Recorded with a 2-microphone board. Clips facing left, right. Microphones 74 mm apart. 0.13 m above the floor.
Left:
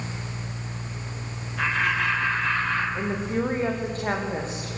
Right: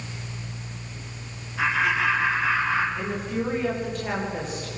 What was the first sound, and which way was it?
Laughter, 5° right (ahead or behind).